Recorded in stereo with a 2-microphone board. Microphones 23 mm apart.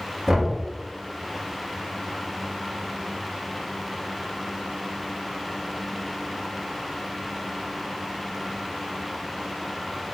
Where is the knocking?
20° right (ahead or behind), 1.4 m.